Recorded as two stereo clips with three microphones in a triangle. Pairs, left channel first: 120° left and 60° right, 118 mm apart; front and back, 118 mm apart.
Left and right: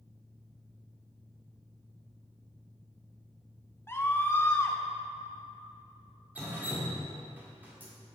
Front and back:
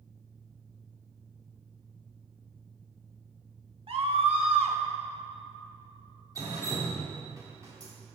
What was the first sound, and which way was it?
A scream, 175° right.